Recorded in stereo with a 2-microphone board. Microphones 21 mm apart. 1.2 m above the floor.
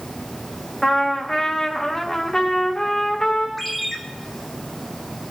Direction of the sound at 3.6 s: 10° left (ahead or behind).